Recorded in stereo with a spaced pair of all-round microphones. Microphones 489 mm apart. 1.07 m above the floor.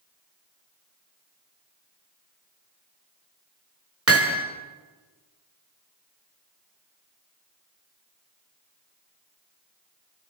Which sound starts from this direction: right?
Hammering, at 4.1 s.